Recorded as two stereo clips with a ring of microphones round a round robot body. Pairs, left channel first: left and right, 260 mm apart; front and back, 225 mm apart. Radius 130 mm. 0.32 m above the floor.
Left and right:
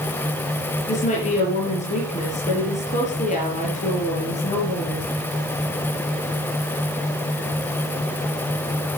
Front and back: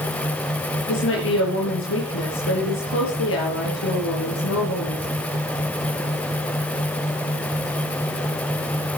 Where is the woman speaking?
25° left, 6.5 m.